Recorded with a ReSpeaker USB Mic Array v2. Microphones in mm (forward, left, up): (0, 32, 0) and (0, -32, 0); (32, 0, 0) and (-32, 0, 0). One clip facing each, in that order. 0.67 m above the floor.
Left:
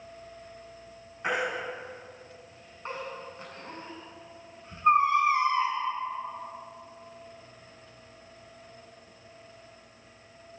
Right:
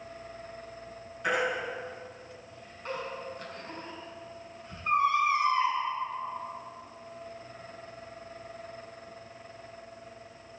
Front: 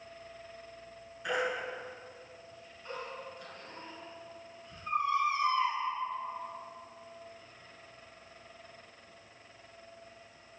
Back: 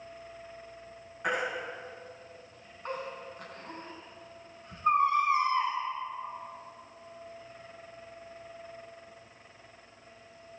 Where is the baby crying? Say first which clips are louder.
Right 1 dB, back 1 dB; 150° left, 5 m.